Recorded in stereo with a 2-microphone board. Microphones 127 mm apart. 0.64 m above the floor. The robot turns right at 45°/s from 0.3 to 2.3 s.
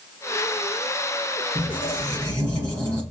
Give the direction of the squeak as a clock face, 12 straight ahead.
2 o'clock.